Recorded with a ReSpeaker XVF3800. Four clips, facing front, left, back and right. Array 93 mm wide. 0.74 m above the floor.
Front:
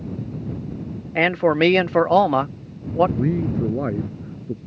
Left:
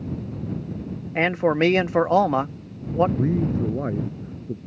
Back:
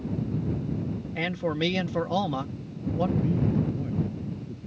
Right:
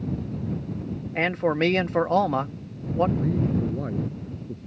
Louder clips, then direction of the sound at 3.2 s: Left 2 dB, front 4 dB; 15° left.